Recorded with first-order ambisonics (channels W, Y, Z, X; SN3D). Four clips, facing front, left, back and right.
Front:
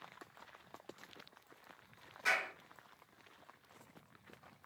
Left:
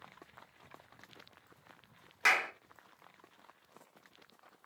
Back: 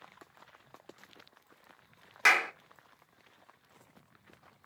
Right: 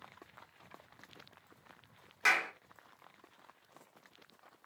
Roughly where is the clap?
Behind.